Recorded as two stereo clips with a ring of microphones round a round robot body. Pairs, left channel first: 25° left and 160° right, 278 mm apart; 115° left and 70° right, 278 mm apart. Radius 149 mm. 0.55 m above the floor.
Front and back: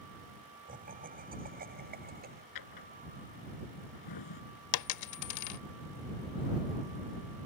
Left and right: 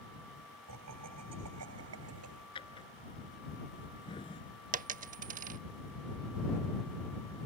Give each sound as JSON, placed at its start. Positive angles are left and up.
{"t": 0.7, "sound": "laughter", "azimuth_deg": -95}
{"t": 2.5, "sound": "a drawer", "azimuth_deg": 40}
{"t": 4.7, "sound": "a dropped coin", "azimuth_deg": -5}